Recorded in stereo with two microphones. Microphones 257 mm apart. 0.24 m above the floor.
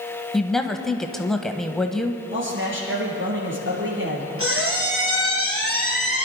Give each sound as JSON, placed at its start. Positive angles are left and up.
{"t": 0.3, "sound": "a woman speaking", "side_deg": 0, "distance_m": 1.0}
{"t": 2.3, "sound": "a man speaking", "side_deg": -50, "distance_m": 5.0}
{"t": 4.4, "sound": "a squeak", "side_deg": -60, "distance_m": 3.0}